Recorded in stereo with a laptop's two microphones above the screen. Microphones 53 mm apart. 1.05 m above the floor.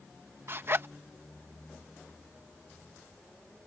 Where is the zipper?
50° right (ahead or behind).